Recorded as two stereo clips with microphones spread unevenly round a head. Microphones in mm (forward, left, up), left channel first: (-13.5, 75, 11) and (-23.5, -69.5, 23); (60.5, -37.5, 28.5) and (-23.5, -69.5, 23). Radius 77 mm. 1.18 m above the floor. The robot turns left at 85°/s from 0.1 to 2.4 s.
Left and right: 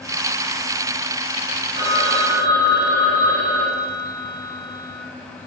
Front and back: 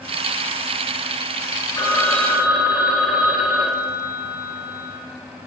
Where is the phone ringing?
25° right, 5.5 m; by 5.0 s 80° right, 5.5 m.